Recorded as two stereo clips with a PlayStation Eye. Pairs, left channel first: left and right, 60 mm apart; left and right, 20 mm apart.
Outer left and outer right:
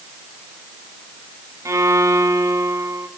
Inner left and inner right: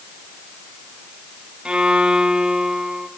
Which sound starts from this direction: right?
A violin, at 1.6 s.